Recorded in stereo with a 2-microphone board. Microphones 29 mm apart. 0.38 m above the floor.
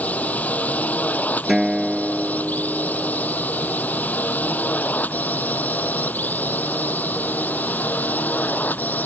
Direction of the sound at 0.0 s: 60° left (ahead or behind).